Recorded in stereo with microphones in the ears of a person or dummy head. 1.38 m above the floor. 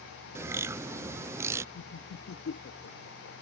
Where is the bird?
15° right (ahead or behind).